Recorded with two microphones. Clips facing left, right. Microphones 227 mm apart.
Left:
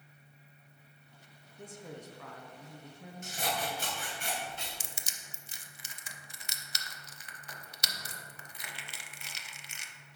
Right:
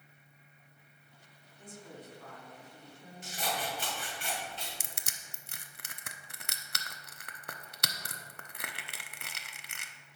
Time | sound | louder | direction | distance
1.6 | a woman speaking | left 3 dB | 65° left (ahead or behind) | 1.1 m
3.2 | scissors | left 1 dB | 45° left (ahead or behind) | 2.5 m
4.8 | crushing | even | 60° right (ahead or behind) | 0.5 m